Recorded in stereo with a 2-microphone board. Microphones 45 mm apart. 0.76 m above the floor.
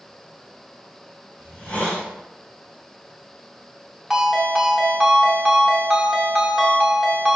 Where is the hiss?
25° left (ahead or behind), 1.3 m.